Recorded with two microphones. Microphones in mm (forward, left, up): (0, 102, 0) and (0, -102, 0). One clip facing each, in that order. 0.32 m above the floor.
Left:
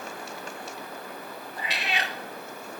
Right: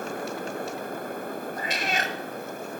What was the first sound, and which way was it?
A cat meowing, 45° right (ahead or behind).